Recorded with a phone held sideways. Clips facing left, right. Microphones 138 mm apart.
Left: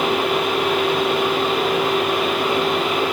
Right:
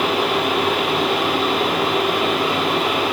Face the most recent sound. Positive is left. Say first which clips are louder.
# even
turn(degrees=-85)